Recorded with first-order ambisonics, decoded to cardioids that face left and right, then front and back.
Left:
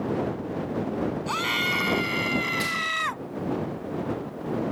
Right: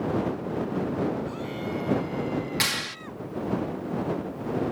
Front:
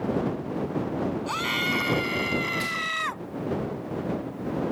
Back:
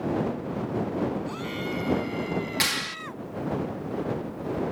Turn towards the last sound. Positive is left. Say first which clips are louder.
# left 1 dB, back 1 dB
turn(degrees=-145)